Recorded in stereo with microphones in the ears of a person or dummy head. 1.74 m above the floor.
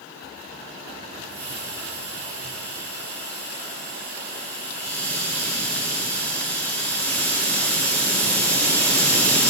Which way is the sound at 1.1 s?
15° left (ahead or behind).